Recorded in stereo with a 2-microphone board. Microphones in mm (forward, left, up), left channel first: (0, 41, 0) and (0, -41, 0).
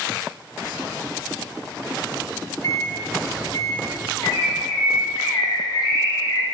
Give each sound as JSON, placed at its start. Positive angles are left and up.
{"t": 2.6, "sound": "a microwave", "side_deg": 40, "distance_m": 1.5}
{"t": 4.2, "sound": "a bird", "side_deg": 55, "distance_m": 1.3}